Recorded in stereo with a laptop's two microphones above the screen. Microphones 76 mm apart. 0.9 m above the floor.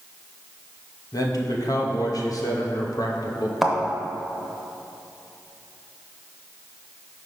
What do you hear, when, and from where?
1.1 s a man speaking: 55° left (ahead or behind), 0.8 m
3.6 s a thud: centre (ahead or behind), 0.7 m